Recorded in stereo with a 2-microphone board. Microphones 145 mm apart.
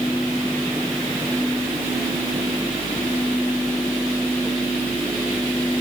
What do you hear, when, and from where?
Only background noise.